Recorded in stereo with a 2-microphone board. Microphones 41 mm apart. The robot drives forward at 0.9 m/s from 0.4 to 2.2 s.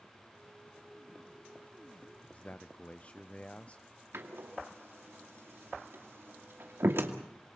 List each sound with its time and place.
2.3 s a man speaking: 30° left (ahead or behind), 0.5 m
4.1 s a door slam: 75° right (ahead or behind), 2.5 m